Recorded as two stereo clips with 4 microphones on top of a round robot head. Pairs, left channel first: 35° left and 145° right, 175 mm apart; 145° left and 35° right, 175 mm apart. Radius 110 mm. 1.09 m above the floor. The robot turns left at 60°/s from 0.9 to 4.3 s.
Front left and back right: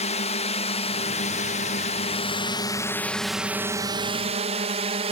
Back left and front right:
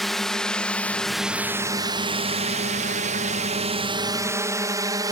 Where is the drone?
55° left; by 5.1 s 100° right.